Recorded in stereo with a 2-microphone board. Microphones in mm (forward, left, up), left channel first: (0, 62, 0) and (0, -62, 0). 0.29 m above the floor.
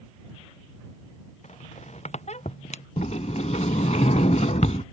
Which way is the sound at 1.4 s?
65° left (ahead or behind).